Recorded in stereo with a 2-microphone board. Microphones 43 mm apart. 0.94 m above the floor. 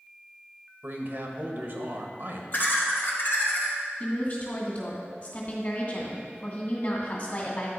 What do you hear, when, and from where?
0.8 s a man speaking: 45° right (ahead or behind), 1.1 m
2.5 s laughter: 50° left (ahead or behind), 2 m
4.0 s a woman speaking: 45° left (ahead or behind), 2.0 m